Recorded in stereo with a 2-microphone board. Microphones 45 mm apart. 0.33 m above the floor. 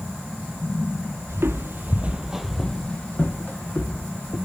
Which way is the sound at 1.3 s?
70° right (ahead or behind).